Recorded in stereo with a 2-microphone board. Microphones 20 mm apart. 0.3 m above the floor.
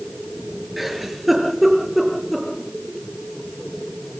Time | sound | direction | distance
0.8 | a giggle | 5° right (ahead or behind) | 7 m